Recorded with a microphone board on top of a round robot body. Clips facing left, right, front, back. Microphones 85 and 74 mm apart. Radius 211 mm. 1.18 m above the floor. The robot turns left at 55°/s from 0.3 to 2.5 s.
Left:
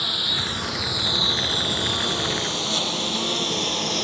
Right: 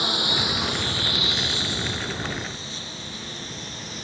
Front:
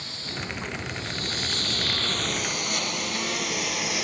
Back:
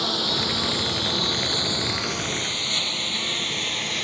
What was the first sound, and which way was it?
A lawn mower, 160° right.